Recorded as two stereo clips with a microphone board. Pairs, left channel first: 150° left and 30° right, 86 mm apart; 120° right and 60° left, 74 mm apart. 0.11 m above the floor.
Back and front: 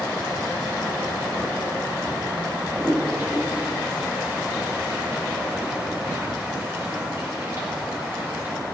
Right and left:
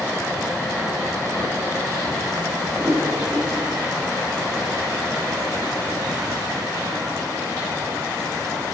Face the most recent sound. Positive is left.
turn(degrees=35)